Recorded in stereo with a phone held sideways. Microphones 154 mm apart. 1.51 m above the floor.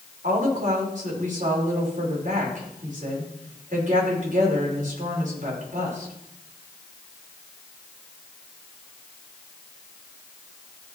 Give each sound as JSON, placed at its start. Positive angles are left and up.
{"t": 0.2, "sound": "a woman speaking", "side_deg": -55, "distance_m": 5.5}